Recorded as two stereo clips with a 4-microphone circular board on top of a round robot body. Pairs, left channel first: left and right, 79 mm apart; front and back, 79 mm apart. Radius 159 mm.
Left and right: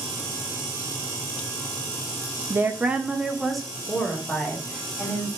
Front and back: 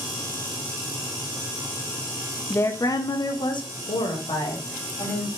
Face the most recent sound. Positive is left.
turn(degrees=10)